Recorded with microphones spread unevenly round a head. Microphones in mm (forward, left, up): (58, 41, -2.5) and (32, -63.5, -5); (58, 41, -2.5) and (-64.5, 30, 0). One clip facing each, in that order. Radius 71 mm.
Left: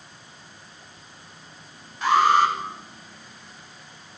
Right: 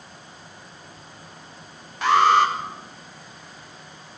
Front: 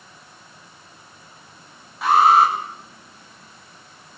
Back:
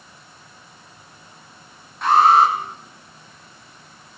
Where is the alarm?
80° right, 8 m.